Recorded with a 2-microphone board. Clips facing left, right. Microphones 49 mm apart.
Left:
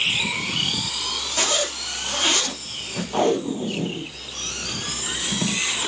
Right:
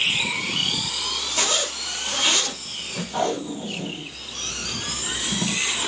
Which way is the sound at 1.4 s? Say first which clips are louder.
Left 2 dB; 30° left (ahead or behind).